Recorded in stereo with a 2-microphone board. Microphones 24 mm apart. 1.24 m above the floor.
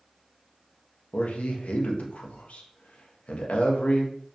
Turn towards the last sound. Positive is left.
turn(degrees=65)  # may be behind; listen again after turning